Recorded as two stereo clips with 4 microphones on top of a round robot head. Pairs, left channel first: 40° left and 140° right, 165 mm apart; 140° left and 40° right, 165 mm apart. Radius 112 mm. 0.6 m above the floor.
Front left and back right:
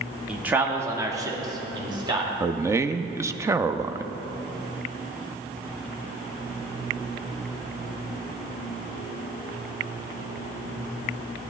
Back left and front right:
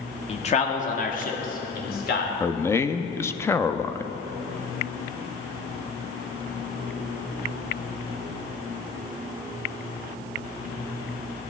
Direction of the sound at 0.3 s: 140° left.